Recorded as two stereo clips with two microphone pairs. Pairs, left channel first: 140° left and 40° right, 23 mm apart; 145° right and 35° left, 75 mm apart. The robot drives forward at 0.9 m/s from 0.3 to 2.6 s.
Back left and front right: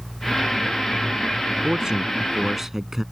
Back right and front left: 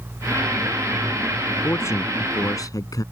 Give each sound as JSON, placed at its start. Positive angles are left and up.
{"t": 1.6, "sound": "a man speaking", "azimuth_deg": -95}